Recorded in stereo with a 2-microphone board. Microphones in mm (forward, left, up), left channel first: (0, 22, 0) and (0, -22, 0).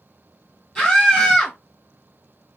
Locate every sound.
0.8 s a scream: 25° left (ahead or behind), 4.5 m